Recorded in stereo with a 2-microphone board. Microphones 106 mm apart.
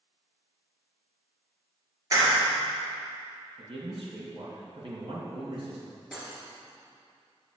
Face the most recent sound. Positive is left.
turn(degrees=-5)  # may be behind; listen again after turning